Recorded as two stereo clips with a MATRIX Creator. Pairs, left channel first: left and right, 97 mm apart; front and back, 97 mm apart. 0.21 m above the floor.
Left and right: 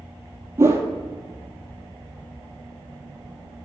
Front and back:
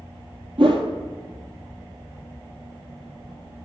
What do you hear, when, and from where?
0.6 s a whoosh: 155° right, 1.2 m